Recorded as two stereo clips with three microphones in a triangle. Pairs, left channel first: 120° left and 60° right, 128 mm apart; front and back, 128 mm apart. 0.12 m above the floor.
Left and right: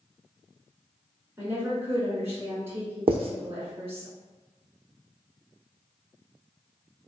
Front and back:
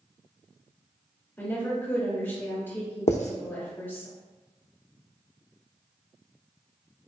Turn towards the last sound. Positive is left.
turn(degrees=-20)